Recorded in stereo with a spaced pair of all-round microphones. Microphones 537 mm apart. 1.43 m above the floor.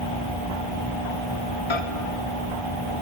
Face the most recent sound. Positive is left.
turn(degrees=60)  # may be behind; listen again after turning